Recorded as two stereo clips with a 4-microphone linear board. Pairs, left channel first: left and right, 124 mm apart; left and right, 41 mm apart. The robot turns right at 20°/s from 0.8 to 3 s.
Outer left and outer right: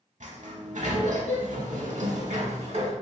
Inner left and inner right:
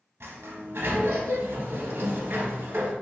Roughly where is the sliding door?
Right.